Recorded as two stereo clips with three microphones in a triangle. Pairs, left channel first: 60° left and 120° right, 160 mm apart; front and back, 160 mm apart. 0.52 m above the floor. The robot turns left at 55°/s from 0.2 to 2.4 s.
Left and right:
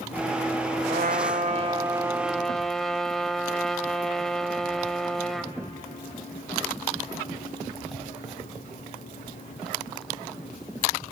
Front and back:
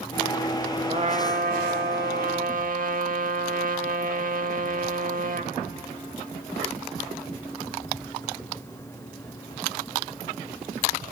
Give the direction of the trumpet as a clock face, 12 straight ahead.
4 o'clock.